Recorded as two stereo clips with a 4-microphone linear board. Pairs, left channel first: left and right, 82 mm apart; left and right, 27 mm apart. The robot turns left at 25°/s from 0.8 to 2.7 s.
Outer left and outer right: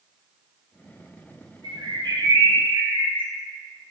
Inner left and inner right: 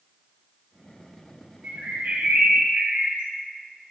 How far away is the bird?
About 2.5 m.